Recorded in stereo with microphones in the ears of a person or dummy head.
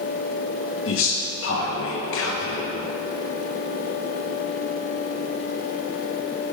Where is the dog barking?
No dog barking in this recording.